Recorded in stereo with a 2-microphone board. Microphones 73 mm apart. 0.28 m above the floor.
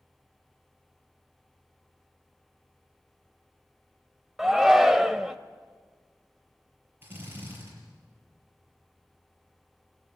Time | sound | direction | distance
4.4 | a shout | 5° right (ahead or behind) | 1.0 m
7.0 | a drill | 30° right (ahead or behind) | 8 m